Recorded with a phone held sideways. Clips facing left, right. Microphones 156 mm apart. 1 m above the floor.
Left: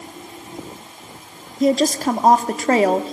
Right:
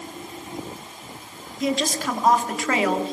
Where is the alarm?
I don't hear an alarm.